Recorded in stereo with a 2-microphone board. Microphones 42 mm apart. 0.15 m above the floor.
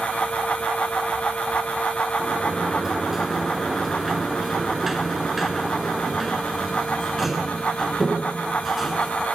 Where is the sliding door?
5° right (ahead or behind), 1.2 m.